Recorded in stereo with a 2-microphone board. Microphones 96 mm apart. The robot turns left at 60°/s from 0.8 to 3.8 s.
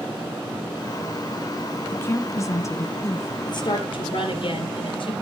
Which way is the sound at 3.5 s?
45° left (ahead or behind).